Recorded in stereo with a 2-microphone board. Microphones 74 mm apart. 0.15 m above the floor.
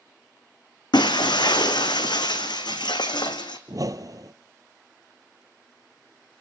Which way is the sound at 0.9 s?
85° left.